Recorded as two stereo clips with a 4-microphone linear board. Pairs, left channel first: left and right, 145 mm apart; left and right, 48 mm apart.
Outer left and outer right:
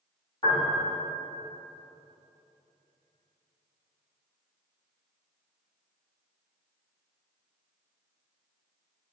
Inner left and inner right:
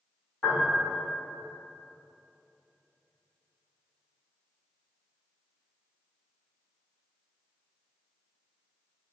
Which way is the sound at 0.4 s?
25° left (ahead or behind).